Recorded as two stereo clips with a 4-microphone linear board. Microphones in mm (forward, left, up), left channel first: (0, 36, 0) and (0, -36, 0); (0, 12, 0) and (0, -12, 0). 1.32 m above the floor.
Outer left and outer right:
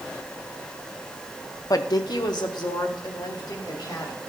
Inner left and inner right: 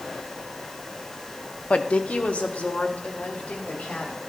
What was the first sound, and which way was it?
A woman speaking, 50° left (ahead or behind).